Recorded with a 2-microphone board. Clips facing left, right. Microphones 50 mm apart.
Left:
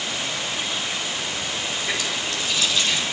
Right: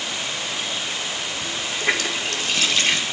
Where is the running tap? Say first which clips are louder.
Right 3 dB; 65° right (ahead or behind), 2.5 m.